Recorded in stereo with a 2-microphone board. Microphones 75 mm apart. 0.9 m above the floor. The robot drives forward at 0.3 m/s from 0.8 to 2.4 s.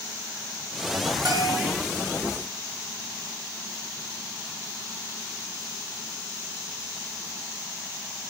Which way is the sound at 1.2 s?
70° right (ahead or behind).